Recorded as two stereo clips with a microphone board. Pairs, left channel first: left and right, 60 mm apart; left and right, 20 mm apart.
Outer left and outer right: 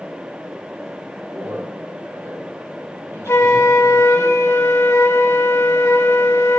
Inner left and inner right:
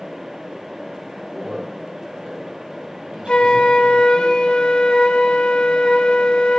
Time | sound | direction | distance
1.3 | a man speaking | 75° right (ahead or behind) | 3.5 m
3.3 | a flute | 50° left (ahead or behind) | 0.6 m